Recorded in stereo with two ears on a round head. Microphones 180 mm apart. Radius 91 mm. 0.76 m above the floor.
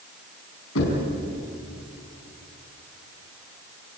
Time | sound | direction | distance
0.8 | knocking | 75° left (ahead or behind) | 5.5 m